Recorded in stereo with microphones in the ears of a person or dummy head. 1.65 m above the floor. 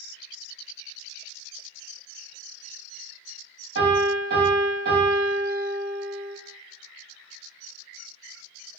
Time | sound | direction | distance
3.8 | a piano | 60° right (ahead or behind) | 1.7 m